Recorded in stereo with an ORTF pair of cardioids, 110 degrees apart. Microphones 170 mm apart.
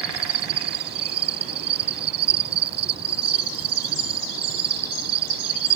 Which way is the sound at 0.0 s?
65° right.